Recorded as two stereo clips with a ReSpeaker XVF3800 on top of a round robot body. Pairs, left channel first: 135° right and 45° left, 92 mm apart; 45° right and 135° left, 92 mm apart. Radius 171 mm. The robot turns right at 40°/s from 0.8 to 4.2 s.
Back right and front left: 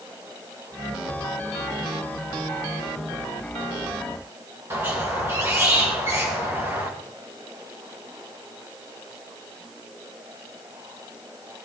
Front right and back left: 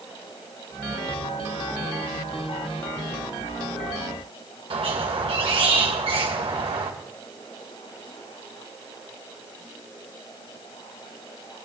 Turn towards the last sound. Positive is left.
turn(degrees=110)